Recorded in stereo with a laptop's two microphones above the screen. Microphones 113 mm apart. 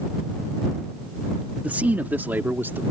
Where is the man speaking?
15° right (ahead or behind); by 2.8 s 20° right (ahead or behind).